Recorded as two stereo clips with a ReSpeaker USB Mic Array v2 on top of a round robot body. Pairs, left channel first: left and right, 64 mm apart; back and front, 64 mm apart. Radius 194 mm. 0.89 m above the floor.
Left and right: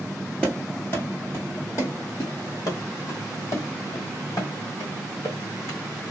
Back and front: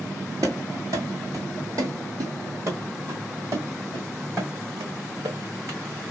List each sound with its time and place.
0.4 s running footsteps: 20° left, 0.9 m; by 5.8 s 50° left, 3.5 m